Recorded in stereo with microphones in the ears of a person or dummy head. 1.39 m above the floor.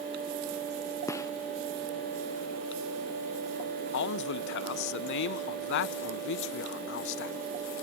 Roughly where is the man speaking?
Left.